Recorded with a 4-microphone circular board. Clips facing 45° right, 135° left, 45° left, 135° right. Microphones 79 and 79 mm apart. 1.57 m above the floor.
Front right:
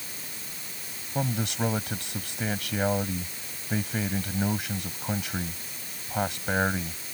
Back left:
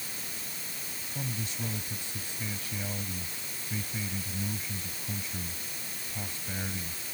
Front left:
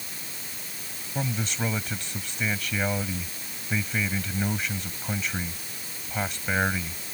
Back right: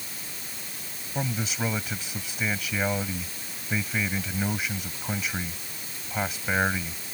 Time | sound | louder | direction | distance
1.1 | a man speaking | front right 10 dB, even | 50° right | ?